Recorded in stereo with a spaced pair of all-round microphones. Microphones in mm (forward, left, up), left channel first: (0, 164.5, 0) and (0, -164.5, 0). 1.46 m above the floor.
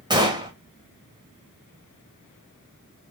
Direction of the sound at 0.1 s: 10° right (ahead or behind).